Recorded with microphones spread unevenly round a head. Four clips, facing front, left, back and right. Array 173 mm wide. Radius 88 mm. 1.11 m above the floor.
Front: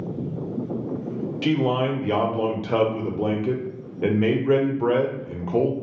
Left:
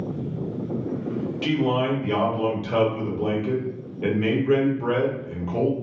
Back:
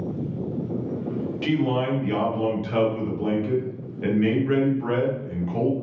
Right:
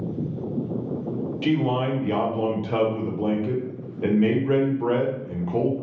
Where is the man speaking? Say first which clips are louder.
Even, front 2 dB; 10° right, 0.8 m.